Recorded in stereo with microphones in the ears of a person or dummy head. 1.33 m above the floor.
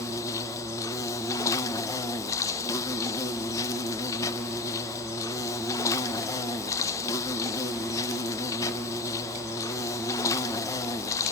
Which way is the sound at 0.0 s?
20° left (ahead or behind).